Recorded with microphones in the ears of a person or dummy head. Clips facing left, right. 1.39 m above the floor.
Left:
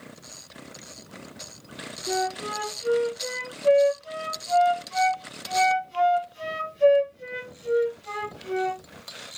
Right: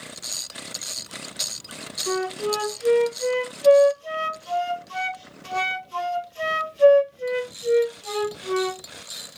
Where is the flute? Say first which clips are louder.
Right 3 dB; 70° right (ahead or behind), 1.9 m.